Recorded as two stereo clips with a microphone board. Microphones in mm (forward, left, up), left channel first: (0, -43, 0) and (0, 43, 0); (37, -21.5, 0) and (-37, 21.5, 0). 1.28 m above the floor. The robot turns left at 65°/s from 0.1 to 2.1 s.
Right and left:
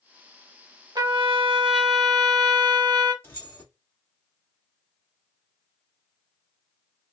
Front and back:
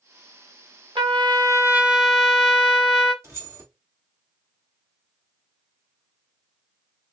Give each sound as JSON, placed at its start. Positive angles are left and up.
{"t": 0.9, "sound": "a trumpet", "azimuth_deg": 130, "distance_m": 1.2}
{"t": 3.2, "sound": "keys jangling", "azimuth_deg": -155, "distance_m": 1.9}